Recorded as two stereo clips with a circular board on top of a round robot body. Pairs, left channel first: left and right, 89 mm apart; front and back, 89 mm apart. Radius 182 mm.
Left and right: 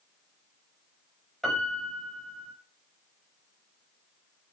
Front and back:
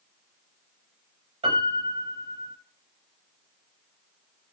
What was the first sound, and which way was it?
A piano, 175° left.